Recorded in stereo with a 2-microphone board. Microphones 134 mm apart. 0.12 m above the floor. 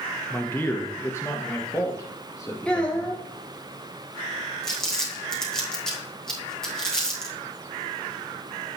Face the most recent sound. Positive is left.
turn(degrees=5)  # may be behind; listen again after turning